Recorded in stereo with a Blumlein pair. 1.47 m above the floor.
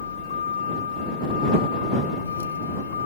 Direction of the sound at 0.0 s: 70° left.